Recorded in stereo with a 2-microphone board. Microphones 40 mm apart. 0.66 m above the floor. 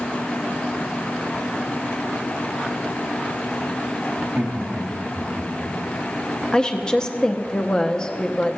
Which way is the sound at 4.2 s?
45° right (ahead or behind).